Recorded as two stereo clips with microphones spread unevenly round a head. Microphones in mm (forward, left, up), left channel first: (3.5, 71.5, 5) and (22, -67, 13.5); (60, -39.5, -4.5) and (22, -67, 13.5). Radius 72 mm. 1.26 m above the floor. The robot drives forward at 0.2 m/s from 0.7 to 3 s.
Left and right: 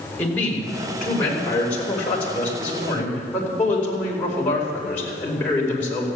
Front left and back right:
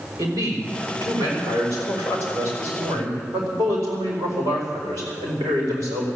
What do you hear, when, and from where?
0.2 s a man speaking: straight behind, 4 m